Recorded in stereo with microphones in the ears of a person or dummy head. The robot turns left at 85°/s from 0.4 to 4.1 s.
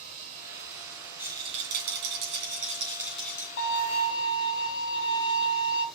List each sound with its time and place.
0.0 s running water: 45° right, 4 m; by 6.0 s straight ahead, 4 m
1.2 s a rattle: 10° right, 2.5 m; by 3.5 s 155° left, 2.5 m
3.6 s a violin: 75° left, 2 m; by 5.8 s 30° left, 2 m